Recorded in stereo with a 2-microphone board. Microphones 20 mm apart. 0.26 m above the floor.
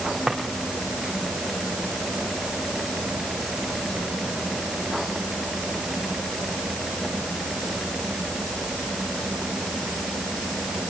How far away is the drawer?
About 3 m.